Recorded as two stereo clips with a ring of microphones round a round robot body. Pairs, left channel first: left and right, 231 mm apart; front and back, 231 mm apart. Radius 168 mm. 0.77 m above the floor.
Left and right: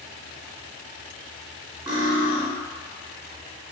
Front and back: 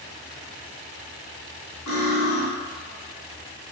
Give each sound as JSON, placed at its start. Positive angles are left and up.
{"t": 1.9, "sound": "cutlery clinking", "azimuth_deg": -20, "distance_m": 1.2}